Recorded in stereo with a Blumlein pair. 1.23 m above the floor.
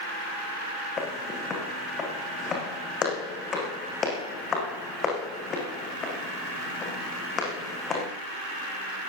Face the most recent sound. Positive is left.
turn(degrees=25)